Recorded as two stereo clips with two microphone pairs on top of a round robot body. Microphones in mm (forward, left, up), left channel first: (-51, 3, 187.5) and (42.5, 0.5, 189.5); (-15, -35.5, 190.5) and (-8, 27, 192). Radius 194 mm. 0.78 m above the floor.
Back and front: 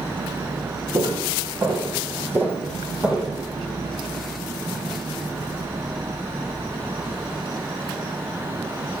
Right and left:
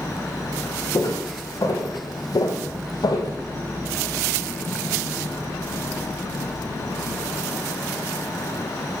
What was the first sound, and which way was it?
Footsteps, 55° right.